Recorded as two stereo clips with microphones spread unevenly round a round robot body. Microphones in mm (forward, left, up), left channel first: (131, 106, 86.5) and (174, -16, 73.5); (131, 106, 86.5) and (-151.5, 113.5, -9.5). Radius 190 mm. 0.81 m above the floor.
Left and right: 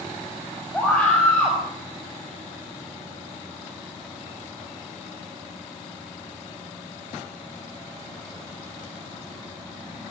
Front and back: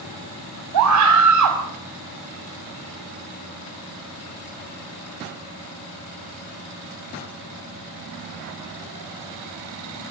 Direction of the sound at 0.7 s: 165° right.